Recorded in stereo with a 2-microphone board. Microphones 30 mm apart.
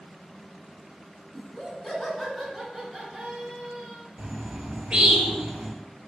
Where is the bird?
55° right (ahead or behind), 1.8 m.